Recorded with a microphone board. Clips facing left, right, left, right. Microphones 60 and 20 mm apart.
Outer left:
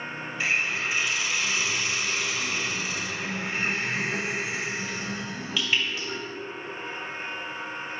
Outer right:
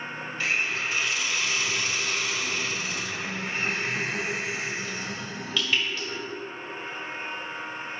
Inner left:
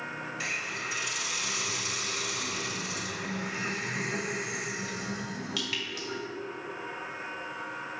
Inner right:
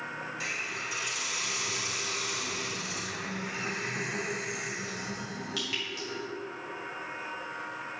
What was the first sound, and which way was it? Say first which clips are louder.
A hiss: outer left 1 dB, inner left 1 dB; 10° left (ahead or behind).